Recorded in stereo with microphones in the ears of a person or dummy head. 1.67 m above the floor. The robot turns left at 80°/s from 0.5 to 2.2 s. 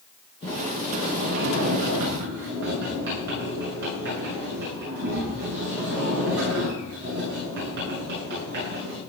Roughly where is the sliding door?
Ahead.